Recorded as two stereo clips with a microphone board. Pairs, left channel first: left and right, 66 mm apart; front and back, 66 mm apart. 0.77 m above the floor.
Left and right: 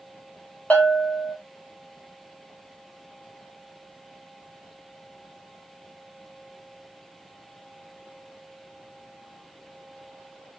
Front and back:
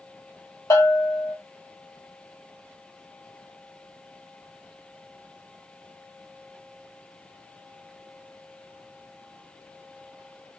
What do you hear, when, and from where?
0.7 s a bell: 25° left, 1.3 m